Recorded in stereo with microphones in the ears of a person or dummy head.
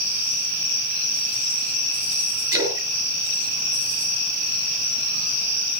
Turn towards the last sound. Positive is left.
turn(degrees=-20)  # may be behind; listen again after turning